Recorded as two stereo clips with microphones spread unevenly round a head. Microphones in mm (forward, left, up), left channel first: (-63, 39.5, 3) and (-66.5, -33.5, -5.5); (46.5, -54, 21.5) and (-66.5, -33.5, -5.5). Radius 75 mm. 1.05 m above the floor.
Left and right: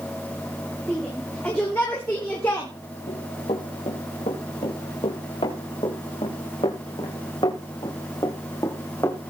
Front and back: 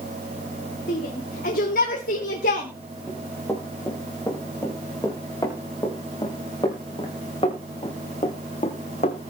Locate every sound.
0.9 s a shout: 5° left, 3.5 m; by 2.7 s 15° left, 2.5 m
3.1 s running footsteps: 65° left, 6 m; by 9.3 s 20° left, 2.5 m